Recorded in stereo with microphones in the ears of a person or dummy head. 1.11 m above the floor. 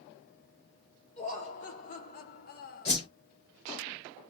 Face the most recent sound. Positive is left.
turn(degrees=35)  # may be behind; listen again after turning